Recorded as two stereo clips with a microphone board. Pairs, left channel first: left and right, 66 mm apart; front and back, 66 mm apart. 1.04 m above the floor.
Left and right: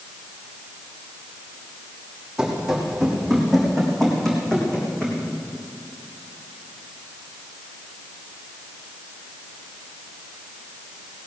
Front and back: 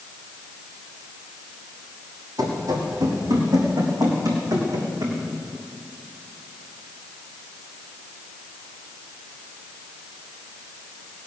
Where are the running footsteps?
170° right, 3.5 m; by 5.2 s 165° left, 4.5 m.